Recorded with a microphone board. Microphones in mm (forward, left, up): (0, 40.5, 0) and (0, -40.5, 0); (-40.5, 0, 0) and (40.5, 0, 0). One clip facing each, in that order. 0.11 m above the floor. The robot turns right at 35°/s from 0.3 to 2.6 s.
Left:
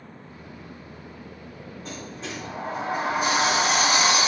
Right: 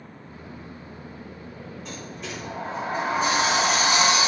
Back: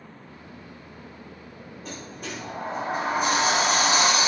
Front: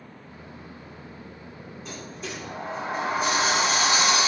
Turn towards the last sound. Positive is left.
turn(degrees=165)